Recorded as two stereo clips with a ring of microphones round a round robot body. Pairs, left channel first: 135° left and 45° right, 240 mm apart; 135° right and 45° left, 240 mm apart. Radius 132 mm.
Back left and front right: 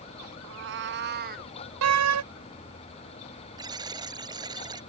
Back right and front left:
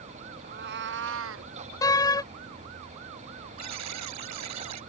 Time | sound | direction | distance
0.4 | a cat meowing | 10° right | ?
1.8 | a door slam | 60° right | ?
3.6 | a buzzer | 30° left | ?